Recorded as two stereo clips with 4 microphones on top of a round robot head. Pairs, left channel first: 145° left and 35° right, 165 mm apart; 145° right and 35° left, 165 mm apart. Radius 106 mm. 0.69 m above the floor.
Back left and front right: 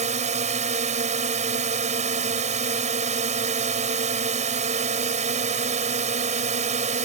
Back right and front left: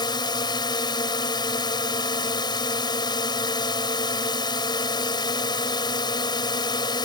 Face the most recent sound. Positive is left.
turn(degrees=-80)